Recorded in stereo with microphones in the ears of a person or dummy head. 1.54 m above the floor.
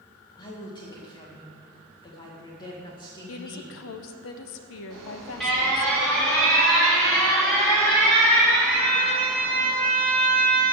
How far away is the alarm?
About 3.5 m.